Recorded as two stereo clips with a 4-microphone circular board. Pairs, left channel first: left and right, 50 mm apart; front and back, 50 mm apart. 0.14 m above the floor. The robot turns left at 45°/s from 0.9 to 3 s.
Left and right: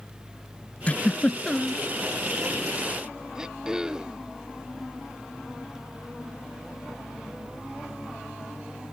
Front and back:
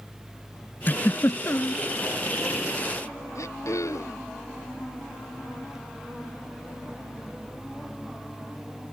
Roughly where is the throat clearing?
Ahead.